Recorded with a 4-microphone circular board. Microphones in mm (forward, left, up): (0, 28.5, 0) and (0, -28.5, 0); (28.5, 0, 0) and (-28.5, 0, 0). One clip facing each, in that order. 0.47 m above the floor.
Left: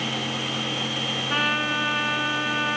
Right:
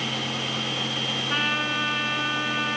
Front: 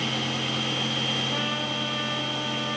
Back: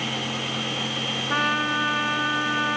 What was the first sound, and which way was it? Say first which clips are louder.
A trumpet: left 2 dB, back 6 dB; 175° left.